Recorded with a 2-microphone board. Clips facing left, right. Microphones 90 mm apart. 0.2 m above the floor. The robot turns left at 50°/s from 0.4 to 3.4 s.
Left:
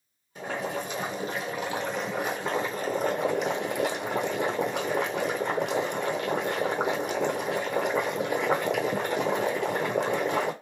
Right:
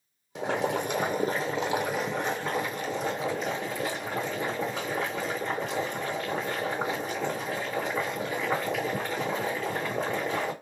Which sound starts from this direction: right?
Boiling, at 0.3 s.